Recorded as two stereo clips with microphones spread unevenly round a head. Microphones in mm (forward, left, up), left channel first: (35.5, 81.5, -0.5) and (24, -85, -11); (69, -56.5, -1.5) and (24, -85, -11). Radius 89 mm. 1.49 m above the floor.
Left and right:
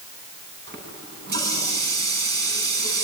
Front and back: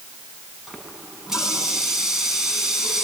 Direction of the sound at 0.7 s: 65° right.